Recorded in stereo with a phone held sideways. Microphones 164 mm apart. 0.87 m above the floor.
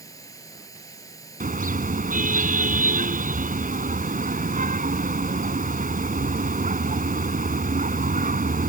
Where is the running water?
20° left (ahead or behind).